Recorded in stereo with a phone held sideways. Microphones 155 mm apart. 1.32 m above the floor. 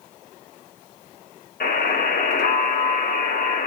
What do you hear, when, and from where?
1.6 s a buzzer: 80° left, 4.5 m